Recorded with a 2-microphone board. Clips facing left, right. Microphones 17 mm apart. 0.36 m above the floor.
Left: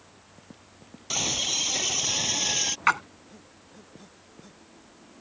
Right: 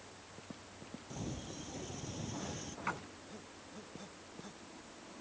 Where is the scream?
80° left; by 2.8 s 75° left (ahead or behind).